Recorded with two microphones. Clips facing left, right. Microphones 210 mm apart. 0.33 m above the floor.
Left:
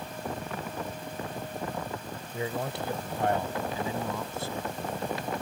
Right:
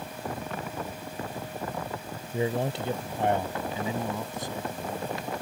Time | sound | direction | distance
2.3 | a man speaking | 30° right (ahead or behind) | ?